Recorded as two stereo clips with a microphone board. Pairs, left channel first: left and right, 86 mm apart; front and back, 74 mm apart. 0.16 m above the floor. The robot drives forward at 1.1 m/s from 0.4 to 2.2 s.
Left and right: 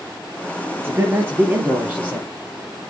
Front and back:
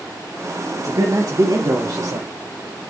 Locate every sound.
0.8 s a man speaking: 150° right, 3 m; by 2.3 s 160° right, 4.5 m